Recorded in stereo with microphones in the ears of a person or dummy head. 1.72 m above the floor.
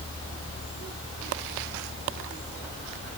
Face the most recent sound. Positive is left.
No sound to turn to.